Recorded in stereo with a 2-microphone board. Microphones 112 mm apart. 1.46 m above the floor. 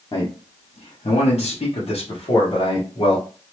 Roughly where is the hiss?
I don't hear a hiss.